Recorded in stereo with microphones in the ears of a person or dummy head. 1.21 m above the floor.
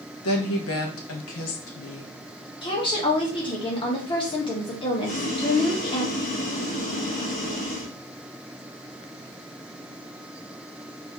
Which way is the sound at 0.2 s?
75° left (ahead or behind).